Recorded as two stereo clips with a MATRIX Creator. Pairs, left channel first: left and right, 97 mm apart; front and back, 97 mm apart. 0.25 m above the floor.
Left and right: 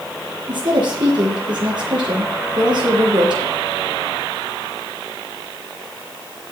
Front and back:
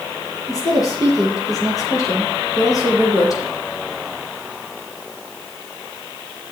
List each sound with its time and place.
0.5 s a woman speaking: 50° right, 6 m